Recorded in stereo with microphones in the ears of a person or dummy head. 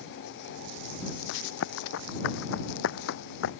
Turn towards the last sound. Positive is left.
turn(degrees=70)  # may be behind; listen again after turning